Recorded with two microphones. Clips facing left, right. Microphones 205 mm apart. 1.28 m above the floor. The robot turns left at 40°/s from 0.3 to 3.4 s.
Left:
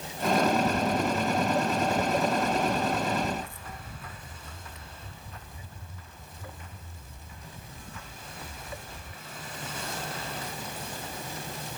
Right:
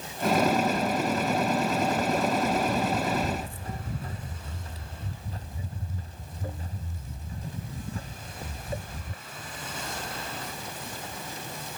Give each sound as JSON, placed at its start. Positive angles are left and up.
{"t": 0.7, "sound": "footsteps", "side_deg": 60}